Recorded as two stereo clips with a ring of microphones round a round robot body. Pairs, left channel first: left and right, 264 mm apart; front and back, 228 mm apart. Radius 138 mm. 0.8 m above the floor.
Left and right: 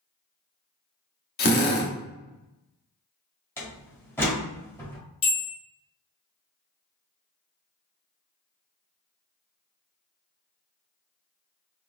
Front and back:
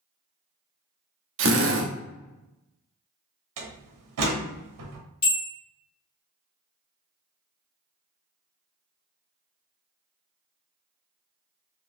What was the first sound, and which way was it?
A drill, 145° left.